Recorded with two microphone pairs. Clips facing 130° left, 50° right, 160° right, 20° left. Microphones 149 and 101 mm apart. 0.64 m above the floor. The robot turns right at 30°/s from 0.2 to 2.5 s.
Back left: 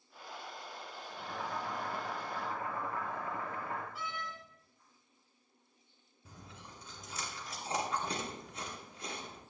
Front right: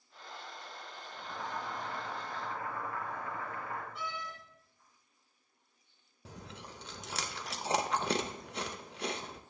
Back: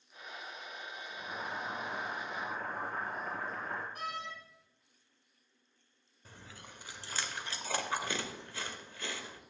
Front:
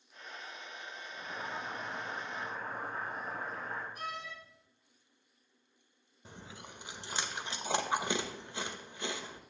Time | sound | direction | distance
1.1 | boiling | 150° left | 4 m
4.0 | a door slam | 140° right | 3.5 m
6.2 | chewing | 50° right | 0.7 m